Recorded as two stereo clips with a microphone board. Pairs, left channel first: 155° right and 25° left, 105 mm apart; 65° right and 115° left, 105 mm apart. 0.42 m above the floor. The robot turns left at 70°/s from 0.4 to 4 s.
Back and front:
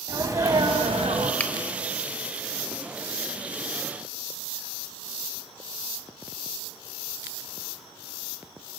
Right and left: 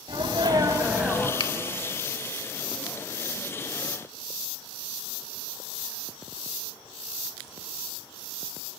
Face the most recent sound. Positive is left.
turn(degrees=95)